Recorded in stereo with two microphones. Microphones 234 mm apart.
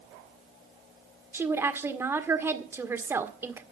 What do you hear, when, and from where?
1.3 s a woman speaking: 10° right (ahead or behind), 1.6 m